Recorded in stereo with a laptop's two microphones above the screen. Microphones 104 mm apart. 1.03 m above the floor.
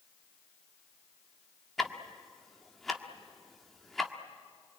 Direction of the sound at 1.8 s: Centre (ahead or behind).